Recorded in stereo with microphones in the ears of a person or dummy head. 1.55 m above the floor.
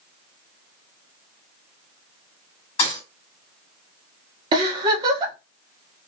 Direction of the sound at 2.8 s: 35° left (ahead or behind).